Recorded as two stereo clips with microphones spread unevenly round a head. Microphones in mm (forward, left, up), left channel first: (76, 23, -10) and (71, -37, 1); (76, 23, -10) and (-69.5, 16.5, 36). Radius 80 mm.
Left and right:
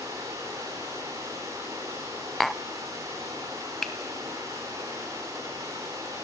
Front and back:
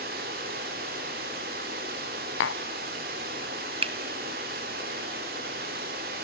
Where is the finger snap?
175° left, 0.7 m.